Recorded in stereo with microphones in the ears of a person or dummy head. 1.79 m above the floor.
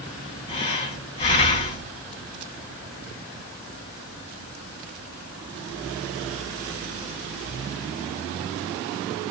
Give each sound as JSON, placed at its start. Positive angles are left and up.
{"t": 0.5, "sound": "breathing", "side_deg": 35, "distance_m": 2.0}